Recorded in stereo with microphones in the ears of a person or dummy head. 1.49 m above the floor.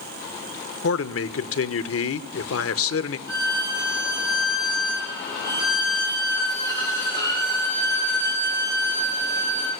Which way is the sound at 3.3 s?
20° right (ahead or behind).